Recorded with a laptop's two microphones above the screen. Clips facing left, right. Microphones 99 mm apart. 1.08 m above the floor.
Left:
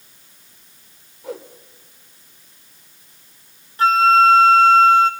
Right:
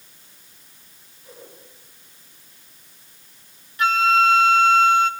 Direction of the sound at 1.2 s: 80° left.